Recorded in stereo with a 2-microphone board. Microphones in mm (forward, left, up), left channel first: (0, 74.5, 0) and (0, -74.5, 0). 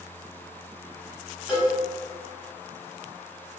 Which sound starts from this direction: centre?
A cowbell, at 1.5 s.